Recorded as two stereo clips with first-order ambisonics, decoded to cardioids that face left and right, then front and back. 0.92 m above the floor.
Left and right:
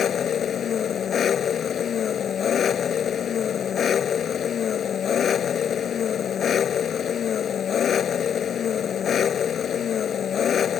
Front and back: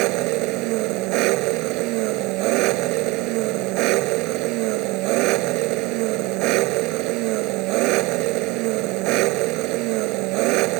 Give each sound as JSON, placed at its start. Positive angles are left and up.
{"t": 0.0, "sound": "an engine running", "azimuth_deg": 155}